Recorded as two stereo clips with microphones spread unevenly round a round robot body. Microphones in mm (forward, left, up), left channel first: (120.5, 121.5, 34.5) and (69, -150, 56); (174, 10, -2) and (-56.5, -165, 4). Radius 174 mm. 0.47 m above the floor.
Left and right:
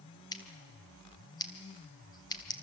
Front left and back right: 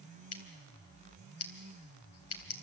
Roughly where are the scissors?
Ahead.